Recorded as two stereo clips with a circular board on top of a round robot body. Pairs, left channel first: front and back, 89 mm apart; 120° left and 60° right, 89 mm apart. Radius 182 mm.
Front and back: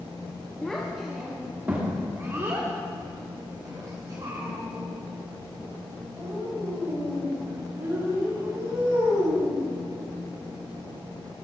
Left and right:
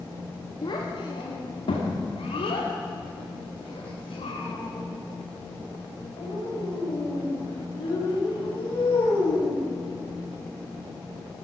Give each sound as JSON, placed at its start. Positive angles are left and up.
{"t": 0.6, "sound": "a child speaking", "azimuth_deg": 80, "distance_m": 1.2}